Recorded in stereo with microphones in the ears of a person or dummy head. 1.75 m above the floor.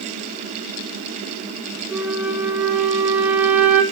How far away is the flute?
About 1.0 m.